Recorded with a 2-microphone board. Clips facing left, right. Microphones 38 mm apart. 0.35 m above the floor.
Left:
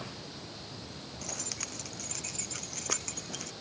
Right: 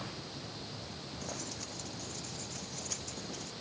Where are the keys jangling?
85° left; by 3.5 s 90° left.